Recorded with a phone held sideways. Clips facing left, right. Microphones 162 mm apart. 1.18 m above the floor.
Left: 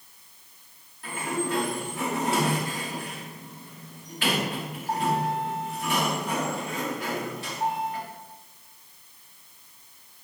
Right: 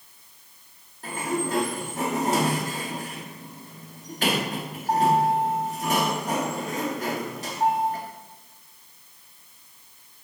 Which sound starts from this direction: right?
A sliding door, at 1.0 s.